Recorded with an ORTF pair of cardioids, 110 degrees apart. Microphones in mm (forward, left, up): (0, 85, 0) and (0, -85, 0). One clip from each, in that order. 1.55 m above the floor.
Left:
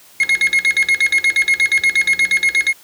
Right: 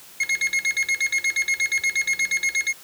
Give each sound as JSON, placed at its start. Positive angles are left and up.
{"t": 0.2, "sound": "an alarm clock", "azimuth_deg": 55}